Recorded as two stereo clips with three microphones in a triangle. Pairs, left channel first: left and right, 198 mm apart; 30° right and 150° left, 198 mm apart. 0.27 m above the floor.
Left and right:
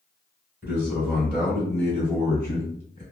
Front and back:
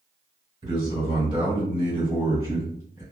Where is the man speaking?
160° right, 2.0 m; by 3.0 s 110° left, 1.7 m.